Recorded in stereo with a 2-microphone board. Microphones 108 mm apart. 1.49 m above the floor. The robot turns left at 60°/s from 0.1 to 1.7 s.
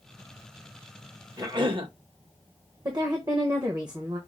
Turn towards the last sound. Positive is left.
turn(degrees=-40)  # may be behind; listen again after turning